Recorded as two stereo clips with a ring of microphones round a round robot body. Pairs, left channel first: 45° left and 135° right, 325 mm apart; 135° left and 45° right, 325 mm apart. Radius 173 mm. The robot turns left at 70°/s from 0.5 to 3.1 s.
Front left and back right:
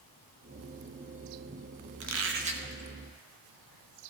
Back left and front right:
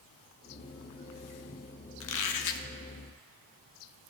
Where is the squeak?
175° right, 0.7 m; by 2.7 s 140° left, 0.7 m.